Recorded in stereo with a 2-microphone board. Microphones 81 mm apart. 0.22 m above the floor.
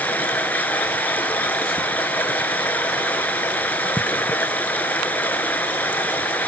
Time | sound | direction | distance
0.0 | running water | 20° left (ahead or behind) | 1.5 m